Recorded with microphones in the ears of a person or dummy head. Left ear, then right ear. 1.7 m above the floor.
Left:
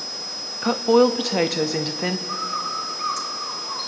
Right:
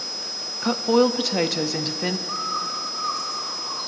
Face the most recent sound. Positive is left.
turn(degrees=55)  # may be behind; listen again after turning